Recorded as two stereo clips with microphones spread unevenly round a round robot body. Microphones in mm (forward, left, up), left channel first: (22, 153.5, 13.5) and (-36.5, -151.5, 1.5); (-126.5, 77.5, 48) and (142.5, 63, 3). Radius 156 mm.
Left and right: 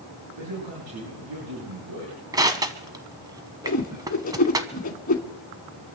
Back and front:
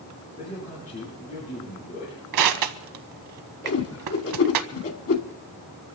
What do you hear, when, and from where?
0.4 s a man speaking: 120° right, 8 m
2.3 s crushing: 20° right, 1.1 m
3.6 s a whoosh: 145° left, 2.5 m